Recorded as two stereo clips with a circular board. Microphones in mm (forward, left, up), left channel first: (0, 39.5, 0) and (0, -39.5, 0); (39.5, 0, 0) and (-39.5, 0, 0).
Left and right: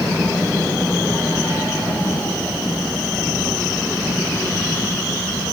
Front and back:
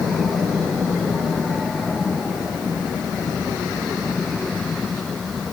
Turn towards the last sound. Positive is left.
No sound to turn to.